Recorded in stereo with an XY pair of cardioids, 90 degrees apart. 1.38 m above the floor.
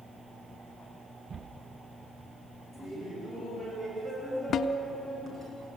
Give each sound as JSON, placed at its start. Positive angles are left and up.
{"t": 2.7, "sound": "laughter", "azimuth_deg": -40, "distance_m": 8.0}
{"t": 4.5, "sound": "a snare drum", "azimuth_deg": 65, "distance_m": 1.2}